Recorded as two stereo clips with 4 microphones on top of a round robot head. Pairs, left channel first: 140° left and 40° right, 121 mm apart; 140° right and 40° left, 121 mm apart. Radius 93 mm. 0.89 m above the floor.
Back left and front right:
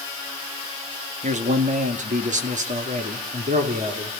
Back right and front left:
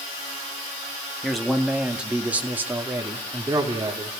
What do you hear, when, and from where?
1.2 s a man speaking: 50° right, 2.0 m; by 4.1 s 20° right, 3 m